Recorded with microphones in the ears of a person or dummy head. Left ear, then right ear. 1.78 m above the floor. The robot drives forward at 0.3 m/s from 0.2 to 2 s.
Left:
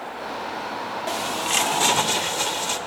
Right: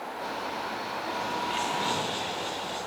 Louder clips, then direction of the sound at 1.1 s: Left 6 dB; 55° left (ahead or behind).